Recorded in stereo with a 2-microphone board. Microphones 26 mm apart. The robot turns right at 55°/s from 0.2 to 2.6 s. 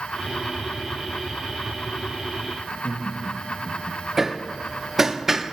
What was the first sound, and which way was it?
Laughter, 80° left.